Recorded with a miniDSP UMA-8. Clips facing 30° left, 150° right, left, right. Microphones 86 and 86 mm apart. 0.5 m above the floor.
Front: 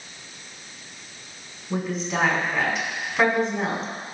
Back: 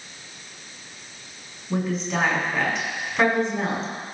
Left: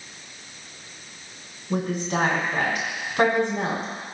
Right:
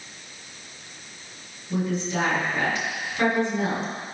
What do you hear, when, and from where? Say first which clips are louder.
1.7 s a woman speaking: back 1 dB, left 1 dB; 120° left, 5 m